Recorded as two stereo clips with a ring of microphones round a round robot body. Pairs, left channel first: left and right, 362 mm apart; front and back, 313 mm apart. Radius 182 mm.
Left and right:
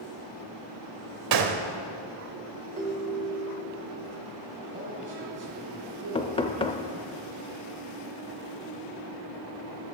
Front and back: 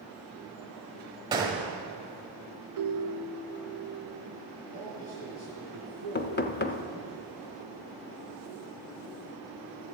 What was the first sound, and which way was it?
A gunshot, 105° right.